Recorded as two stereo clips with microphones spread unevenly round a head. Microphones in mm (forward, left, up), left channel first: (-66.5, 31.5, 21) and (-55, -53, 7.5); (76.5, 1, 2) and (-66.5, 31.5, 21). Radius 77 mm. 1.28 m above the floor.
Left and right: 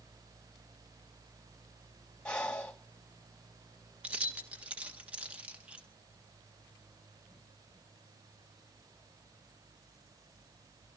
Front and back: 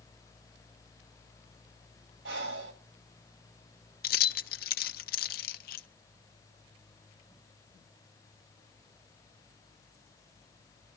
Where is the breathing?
175° left, 2.5 m.